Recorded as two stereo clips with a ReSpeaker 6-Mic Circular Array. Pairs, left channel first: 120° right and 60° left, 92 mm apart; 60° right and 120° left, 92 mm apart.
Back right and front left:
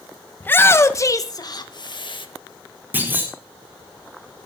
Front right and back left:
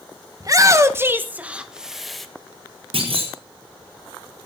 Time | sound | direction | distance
0.4 | a shout | 170° left | 1.6 m
2.9 | a clunk | 130° left | 5 m